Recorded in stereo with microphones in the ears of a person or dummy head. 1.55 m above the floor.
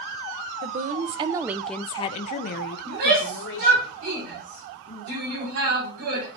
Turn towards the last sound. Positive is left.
turn(degrees=-85)